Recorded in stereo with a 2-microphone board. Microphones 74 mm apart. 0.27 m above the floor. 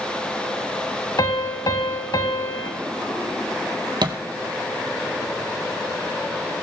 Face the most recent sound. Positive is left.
turn(degrees=-80)